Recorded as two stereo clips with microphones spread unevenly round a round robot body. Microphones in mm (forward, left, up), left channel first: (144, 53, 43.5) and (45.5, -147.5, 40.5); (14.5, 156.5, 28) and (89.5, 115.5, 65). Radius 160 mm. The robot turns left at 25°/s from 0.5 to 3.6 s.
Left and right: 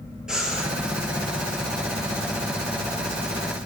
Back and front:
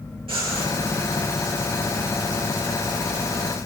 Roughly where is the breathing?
Ahead right.